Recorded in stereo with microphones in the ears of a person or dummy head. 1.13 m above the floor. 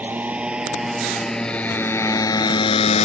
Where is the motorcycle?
15° right (ahead or behind); by 3.0 s 40° left (ahead or behind).